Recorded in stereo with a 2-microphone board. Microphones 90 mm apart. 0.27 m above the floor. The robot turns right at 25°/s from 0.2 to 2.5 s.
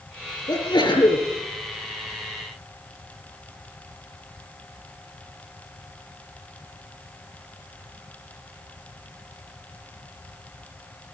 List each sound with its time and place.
0.5 s a sneeze: 50° left (ahead or behind), 6.5 m; by 1.2 s 70° left (ahead or behind), 6.5 m